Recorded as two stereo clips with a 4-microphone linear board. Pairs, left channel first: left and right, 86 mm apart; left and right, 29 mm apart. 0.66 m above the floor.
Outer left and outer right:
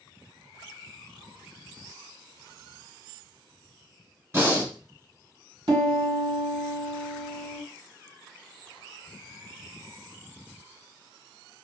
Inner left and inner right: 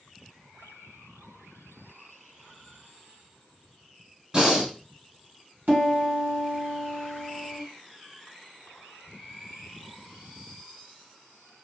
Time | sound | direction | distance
4.3 | breathing | 30° right (ahead or behind) | 1.7 m
5.7 | a piano | 70° right (ahead or behind) | 1.9 m